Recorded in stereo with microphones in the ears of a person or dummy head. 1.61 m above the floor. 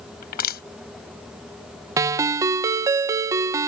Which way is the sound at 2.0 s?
20° right (ahead or behind).